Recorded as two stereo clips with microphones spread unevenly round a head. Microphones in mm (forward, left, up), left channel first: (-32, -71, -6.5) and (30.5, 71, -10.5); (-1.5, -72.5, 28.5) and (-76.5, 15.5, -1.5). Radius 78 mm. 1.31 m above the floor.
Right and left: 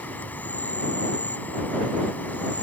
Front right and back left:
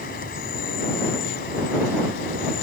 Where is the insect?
35° right.